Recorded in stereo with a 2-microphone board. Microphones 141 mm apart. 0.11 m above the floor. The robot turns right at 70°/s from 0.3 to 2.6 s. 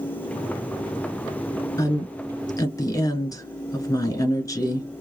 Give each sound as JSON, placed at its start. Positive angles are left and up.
{"t": 1.8, "sound": "a woman speaking", "side_deg": 25, "distance_m": 1.2}